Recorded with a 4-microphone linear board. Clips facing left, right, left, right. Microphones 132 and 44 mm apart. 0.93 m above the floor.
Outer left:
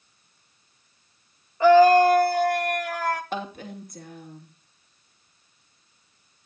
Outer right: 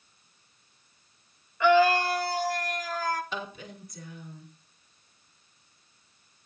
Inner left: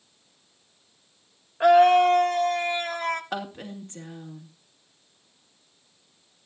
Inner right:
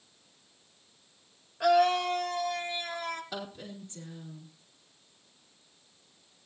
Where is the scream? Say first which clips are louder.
Outer left 7 dB, inner left 8 dB; 35° left (ahead or behind), 1.1 m; by 3.2 s 65° left (ahead or behind), 1.3 m.